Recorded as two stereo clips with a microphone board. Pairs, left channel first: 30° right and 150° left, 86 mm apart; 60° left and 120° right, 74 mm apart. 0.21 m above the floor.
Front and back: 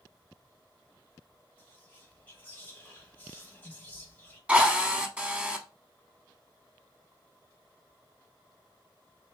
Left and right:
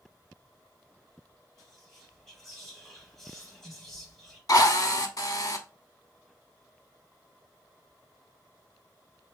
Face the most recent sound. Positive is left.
turn(degrees=80)